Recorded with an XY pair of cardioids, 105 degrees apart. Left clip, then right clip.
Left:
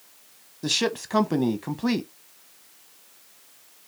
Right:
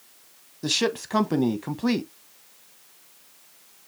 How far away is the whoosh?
No whoosh in this recording.